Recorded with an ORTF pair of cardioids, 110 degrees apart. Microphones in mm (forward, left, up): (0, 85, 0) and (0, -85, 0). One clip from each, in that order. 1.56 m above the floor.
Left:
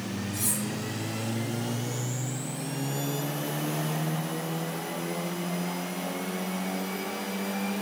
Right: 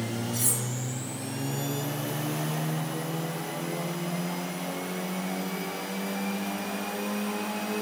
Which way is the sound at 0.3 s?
25° right.